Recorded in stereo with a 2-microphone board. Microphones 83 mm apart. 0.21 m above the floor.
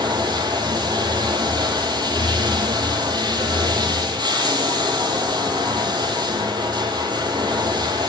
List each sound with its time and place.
0.0 s running water: 60° right (ahead or behind), 0.7 m